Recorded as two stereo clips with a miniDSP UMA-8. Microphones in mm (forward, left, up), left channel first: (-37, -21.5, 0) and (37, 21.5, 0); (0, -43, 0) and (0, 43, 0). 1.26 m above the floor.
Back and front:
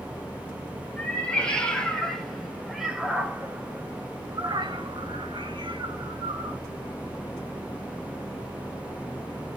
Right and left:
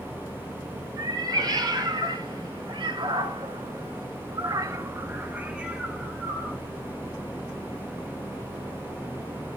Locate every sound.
1.0 s a cat meowing: 135° left, 3 m; by 6.6 s straight ahead, 2 m